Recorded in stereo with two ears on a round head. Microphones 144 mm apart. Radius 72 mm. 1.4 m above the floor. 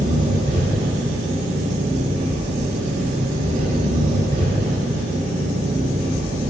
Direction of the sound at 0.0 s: 45° right (ahead or behind).